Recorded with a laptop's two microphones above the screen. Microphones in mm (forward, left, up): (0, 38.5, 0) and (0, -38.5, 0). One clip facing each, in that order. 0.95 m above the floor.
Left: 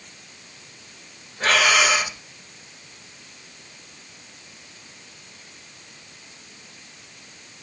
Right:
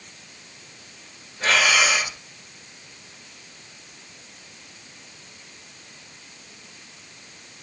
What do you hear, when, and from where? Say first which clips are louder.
1.4 s breathing: left 1 dB; 55° left (ahead or behind), 1.5 m